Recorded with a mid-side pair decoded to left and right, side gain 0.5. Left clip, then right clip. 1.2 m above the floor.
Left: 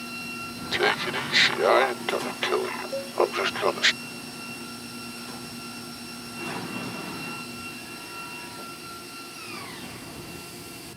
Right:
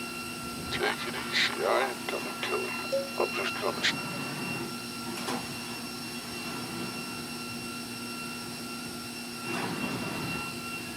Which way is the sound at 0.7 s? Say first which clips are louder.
Left 7 dB; 45° left.